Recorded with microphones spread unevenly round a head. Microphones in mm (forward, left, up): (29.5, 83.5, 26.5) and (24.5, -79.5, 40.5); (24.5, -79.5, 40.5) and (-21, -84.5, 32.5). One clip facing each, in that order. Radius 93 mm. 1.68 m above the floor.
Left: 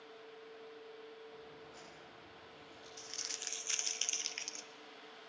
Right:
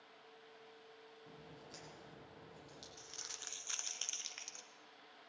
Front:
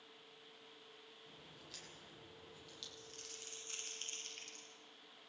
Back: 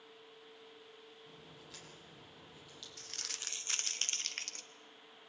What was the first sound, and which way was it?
A crack, 90° right.